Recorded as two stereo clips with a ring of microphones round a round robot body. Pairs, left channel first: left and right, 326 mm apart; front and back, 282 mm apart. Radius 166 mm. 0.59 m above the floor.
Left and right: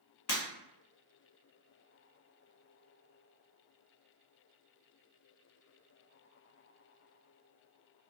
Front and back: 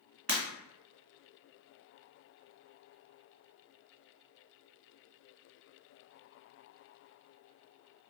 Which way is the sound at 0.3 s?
115° left.